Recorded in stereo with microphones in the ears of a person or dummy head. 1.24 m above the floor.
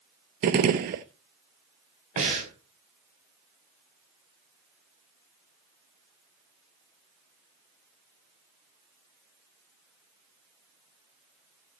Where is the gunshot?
45° right (ahead or behind), 0.8 m.